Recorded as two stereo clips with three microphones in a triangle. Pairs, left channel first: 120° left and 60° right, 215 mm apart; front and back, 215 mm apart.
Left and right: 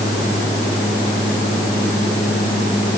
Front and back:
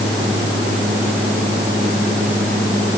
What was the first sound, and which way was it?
Only background noise.